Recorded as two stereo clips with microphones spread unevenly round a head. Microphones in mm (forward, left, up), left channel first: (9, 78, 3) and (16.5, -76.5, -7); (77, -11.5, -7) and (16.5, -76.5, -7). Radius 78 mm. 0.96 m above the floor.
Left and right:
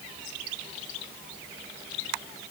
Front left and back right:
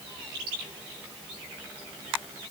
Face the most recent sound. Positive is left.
No sound to turn to.